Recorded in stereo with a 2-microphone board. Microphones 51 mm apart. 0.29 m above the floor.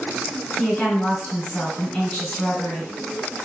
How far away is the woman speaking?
About 1.7 m.